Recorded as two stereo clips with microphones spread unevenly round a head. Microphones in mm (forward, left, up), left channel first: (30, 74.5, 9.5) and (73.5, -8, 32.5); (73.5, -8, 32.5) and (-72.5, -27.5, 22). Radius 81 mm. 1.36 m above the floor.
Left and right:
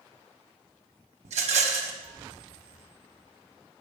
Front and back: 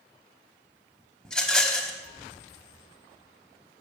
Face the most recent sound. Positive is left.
turn(degrees=-80)